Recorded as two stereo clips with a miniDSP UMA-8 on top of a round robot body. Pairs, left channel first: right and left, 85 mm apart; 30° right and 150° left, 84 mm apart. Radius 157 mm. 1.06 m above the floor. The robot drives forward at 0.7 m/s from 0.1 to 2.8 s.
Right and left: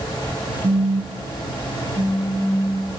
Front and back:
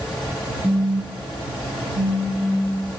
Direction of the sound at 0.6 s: 85° left.